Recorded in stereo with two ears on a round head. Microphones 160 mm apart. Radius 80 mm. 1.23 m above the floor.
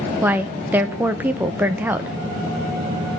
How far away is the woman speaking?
About 0.7 m.